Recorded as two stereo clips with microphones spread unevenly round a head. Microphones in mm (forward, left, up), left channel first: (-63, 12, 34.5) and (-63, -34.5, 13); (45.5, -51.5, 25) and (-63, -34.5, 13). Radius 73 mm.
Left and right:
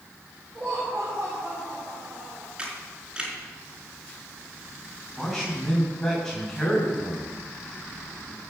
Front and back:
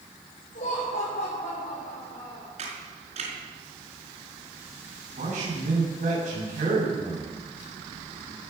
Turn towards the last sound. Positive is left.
turn(degrees=170)